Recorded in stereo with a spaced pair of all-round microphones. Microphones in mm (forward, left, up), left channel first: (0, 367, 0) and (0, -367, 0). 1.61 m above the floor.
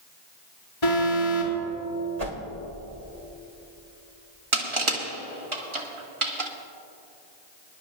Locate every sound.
0.8 s an alarm: 60° left (ahead or behind), 3 m
2.2 s a whoosh: 60° right (ahead or behind), 2.5 m
4.5 s crushing: 40° right (ahead or behind), 1.4 m